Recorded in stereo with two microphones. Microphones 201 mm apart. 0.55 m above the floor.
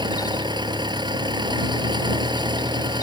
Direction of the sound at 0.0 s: 20° right (ahead or behind).